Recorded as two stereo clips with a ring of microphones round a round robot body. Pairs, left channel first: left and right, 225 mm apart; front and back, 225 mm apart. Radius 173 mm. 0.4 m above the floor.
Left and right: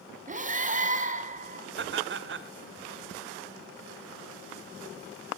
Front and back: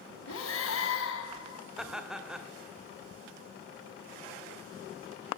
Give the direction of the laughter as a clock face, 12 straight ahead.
3 o'clock.